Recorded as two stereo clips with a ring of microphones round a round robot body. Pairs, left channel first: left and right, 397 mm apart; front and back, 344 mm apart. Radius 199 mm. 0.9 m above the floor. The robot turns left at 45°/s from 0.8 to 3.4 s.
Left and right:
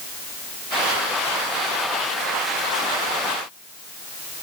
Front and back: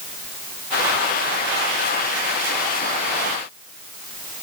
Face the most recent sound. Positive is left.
No sound to turn to.